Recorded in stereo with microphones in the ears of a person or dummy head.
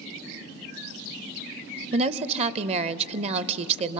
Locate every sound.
1.9 s a woman speaking: 35° right (ahead or behind), 0.6 m